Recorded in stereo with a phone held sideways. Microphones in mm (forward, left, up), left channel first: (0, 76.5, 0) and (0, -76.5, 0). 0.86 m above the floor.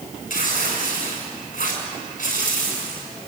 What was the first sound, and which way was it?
Tearing paper, 70° left (ahead or behind).